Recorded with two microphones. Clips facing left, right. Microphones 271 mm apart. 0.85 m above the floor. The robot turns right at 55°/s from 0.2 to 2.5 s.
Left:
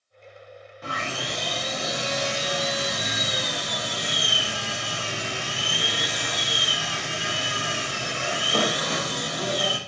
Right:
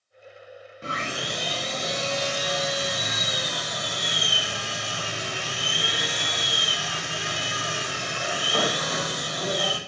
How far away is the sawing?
About 0.6 m.